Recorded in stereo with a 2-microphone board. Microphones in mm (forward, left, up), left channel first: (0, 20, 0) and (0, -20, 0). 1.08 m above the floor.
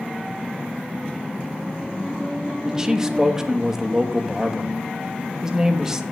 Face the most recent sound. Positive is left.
turn(degrees=-15)  # may be behind; listen again after turning